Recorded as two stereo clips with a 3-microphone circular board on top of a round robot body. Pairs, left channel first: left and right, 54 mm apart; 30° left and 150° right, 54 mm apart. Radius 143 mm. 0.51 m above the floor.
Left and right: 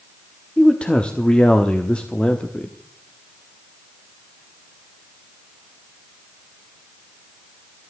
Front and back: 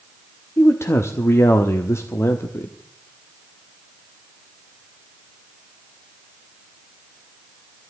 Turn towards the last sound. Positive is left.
turn(degrees=25)